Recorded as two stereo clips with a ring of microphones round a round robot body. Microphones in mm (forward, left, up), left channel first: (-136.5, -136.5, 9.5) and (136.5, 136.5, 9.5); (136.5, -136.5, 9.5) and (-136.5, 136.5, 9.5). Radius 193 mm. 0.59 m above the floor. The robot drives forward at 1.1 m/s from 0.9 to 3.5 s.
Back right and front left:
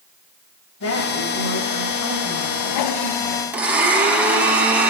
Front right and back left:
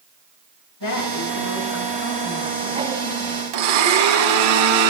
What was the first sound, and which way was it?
A woman speaking, 85° right.